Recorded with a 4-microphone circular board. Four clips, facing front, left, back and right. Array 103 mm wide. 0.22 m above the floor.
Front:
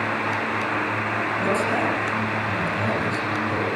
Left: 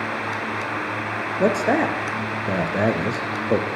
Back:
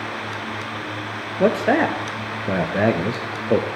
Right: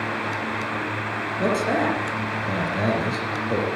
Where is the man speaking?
155° left, 3.5 m.